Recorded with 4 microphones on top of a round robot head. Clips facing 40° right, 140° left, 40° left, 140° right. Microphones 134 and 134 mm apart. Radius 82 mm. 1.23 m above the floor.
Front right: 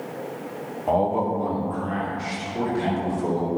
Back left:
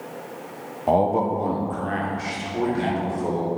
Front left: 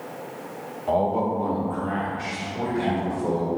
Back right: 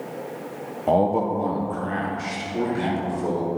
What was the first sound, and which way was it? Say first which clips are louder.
A man speaking: back left 2 dB, back right 2 dB; 165° right.